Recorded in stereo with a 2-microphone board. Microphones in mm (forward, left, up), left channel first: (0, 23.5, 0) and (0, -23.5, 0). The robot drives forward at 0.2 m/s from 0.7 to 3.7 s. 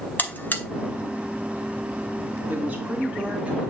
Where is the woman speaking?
30° right (ahead or behind), 2.5 m.